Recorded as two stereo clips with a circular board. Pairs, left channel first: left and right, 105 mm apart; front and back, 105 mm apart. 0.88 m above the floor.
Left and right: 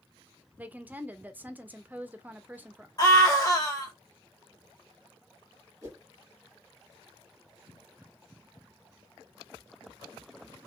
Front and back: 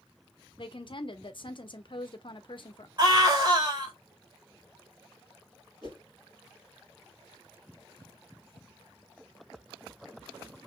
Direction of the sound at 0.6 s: 20° right.